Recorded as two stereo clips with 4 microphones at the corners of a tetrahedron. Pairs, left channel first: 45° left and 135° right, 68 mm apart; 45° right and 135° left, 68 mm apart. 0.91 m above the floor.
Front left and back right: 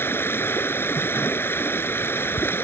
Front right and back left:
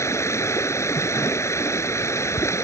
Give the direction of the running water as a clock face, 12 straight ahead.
12 o'clock.